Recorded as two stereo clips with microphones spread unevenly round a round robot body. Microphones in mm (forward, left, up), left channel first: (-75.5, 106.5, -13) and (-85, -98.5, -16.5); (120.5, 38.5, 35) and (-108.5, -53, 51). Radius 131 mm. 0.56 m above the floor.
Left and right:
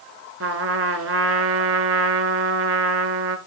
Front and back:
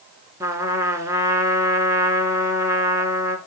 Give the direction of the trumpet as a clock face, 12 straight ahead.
3 o'clock.